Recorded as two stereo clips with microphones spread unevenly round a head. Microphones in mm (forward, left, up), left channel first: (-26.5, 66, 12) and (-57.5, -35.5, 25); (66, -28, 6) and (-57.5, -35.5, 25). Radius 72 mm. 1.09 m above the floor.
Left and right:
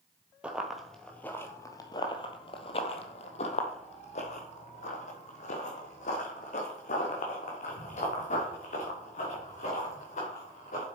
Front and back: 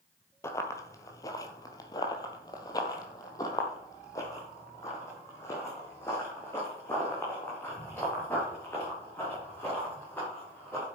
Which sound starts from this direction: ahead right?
Running footsteps, at 0.4 s.